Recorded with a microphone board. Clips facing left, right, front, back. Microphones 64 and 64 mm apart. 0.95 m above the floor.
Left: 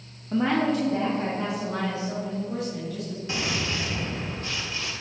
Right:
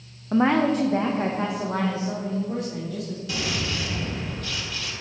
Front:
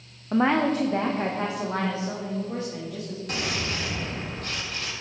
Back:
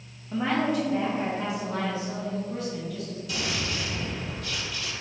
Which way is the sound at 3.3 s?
30° left.